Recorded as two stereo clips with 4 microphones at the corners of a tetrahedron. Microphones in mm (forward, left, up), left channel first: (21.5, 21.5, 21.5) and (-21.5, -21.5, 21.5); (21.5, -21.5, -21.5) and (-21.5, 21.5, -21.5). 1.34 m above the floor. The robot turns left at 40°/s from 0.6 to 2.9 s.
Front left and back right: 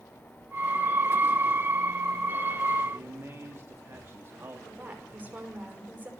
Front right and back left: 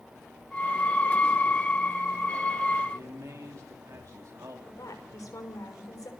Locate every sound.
2.9 s a man speaking: 175° left, 3 m
4.7 s a woman speaking: 75° right, 5.5 m